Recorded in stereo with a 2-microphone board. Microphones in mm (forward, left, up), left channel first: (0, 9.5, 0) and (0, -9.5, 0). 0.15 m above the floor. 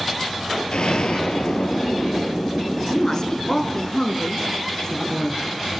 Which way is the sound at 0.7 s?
65° left (ahead or behind).